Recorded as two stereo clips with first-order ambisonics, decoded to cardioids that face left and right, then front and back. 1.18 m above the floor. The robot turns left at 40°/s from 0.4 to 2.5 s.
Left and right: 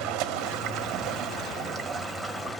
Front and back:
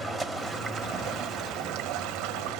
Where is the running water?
105° right, 1.1 m; by 2.6 s 170° left, 1.1 m.